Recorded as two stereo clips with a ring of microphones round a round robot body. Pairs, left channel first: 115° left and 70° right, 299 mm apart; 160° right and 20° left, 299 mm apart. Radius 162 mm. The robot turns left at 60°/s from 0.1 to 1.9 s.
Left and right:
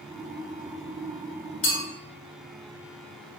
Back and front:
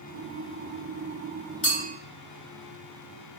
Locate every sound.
1.6 s a clink: 160° left, 1.6 m; by 1.8 s 145° left, 1.6 m